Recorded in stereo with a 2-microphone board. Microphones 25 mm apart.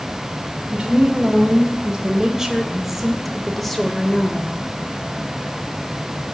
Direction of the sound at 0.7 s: 40° right (ahead or behind).